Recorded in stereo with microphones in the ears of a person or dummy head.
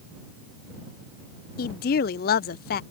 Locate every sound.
1.6 s a woman speaking: 45° left (ahead or behind)